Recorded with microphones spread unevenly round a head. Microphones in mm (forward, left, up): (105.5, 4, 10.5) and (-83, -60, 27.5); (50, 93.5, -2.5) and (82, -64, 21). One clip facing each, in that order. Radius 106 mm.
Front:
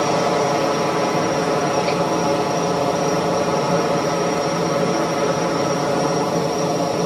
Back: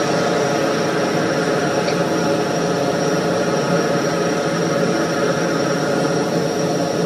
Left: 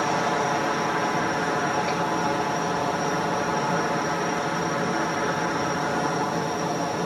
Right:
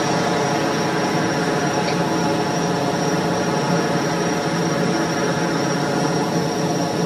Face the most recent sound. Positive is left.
turn(degrees=-100)